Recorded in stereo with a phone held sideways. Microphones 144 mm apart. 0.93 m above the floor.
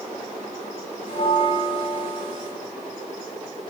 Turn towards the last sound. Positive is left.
turn(degrees=75)  # may be behind; listen again after turning